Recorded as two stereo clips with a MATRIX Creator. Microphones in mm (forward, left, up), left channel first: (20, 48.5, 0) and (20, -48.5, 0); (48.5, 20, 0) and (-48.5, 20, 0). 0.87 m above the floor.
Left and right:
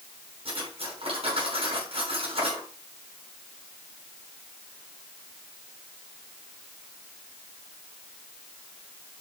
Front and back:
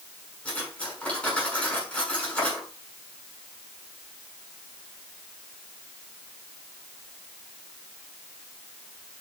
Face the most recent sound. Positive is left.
turn(degrees=-80)